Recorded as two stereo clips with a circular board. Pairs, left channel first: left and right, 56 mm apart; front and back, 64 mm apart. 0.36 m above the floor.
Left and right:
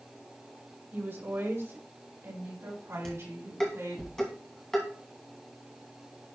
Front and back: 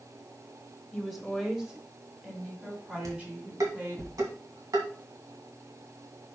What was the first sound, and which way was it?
A woman speaking, 80° right.